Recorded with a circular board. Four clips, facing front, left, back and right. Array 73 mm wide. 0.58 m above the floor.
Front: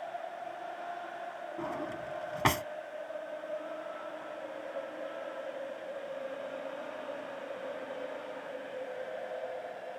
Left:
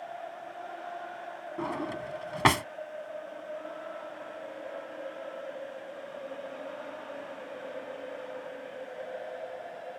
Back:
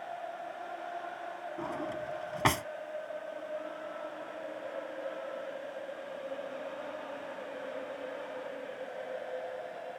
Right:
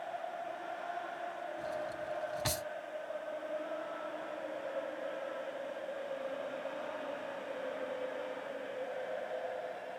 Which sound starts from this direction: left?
A drawer, at 1.6 s.